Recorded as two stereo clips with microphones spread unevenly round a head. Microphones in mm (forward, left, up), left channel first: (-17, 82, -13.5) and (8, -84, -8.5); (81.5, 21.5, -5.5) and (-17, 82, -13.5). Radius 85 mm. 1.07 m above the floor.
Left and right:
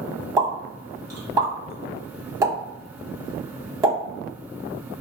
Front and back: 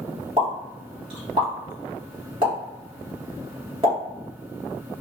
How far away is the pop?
About 1.2 m.